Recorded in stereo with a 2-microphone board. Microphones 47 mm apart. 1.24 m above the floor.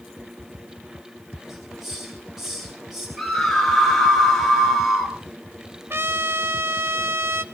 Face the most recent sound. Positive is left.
turn(degrees=-50)  # may be behind; listen again after turning